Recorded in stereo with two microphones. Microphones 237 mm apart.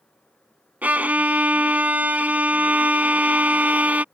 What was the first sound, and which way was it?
A violin, 5° right (ahead or behind).